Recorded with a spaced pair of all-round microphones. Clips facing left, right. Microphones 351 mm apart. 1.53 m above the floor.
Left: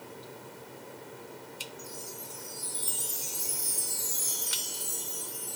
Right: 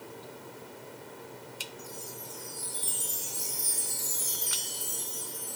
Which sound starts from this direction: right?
A chime, at 1.8 s.